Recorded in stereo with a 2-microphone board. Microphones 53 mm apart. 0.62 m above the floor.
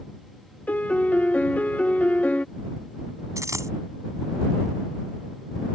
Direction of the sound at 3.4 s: 80° right.